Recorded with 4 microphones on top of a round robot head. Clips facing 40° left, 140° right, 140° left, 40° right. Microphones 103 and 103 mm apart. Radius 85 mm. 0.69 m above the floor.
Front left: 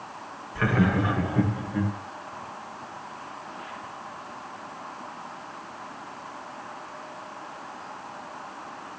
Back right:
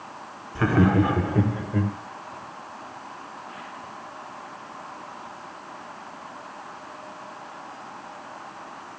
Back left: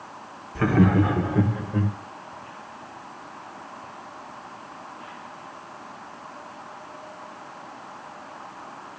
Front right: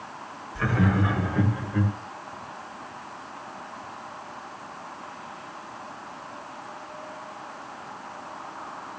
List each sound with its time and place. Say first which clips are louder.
0.6 s laughter: back right 4 dB, back left 5 dB; 165° left, 2.0 m; by 1.9 s 165° right, 3.5 m